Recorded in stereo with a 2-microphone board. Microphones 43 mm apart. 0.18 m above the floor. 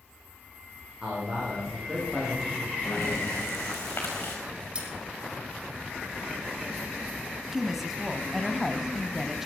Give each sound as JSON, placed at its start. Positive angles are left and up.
{"t": 1.0, "sound": "a man speaking", "side_deg": -15, "distance_m": 8.0}
{"t": 2.9, "sound": "breathing", "side_deg": 65, "distance_m": 5.0}
{"t": 4.8, "sound": "cutlery clinking", "side_deg": -25, "distance_m": 4.5}
{"t": 7.5, "sound": "a woman speaking", "side_deg": -5, "distance_m": 1.0}